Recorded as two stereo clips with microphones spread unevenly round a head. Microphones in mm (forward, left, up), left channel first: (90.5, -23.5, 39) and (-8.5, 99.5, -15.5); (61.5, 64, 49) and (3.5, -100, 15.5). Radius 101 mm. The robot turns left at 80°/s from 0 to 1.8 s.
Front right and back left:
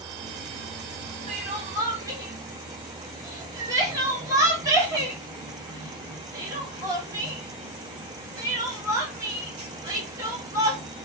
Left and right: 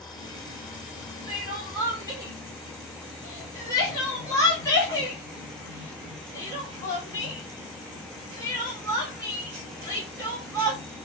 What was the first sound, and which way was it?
Crying, 85° left.